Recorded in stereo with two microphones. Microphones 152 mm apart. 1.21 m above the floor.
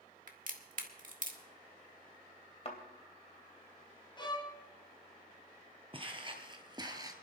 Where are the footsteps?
35° right (ahead or behind), 1.6 m; by 7.1 s 25° right (ahead or behind), 1.2 m.